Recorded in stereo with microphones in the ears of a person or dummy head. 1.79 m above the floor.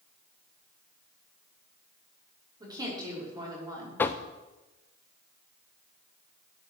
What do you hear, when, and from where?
2.6 s a woman speaking: 20° right (ahead or behind), 6 m
4.0 s knocking: 15° left (ahead or behind), 0.6 m